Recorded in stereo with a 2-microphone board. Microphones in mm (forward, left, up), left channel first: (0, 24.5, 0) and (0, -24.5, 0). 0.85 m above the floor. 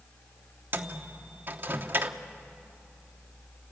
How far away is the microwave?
About 0.9 m.